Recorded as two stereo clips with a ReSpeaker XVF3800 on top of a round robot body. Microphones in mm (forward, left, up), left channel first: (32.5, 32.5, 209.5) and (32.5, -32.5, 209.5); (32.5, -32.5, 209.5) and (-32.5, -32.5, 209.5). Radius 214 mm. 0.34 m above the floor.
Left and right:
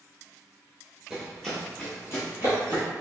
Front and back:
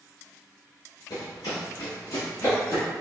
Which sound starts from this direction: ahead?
Running footsteps, at 1.1 s.